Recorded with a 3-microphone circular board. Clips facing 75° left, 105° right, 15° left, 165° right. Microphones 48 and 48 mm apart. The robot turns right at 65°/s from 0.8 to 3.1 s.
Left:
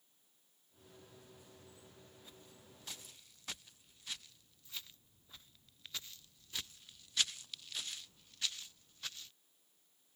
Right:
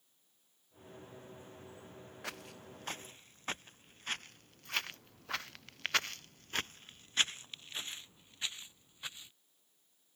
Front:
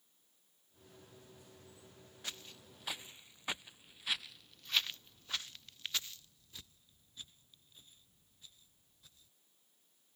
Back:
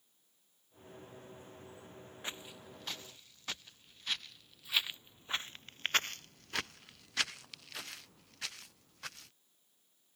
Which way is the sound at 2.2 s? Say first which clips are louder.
Right 12 dB, back 3 dB; 100° right.